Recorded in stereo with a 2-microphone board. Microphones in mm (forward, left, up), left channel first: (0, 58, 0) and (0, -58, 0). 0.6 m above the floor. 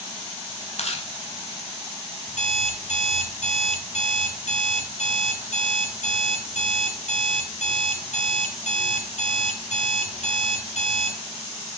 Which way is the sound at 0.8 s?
65° left (ahead or behind).